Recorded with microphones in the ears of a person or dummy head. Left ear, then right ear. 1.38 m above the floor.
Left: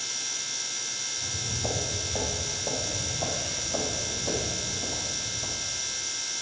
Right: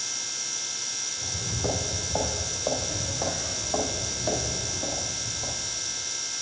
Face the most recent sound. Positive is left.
turn(degrees=-5)  # may be behind; listen again after turning